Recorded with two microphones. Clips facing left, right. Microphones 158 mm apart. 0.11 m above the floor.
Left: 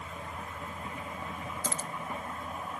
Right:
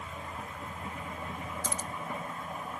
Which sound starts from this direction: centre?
Keys jangling, at 1.6 s.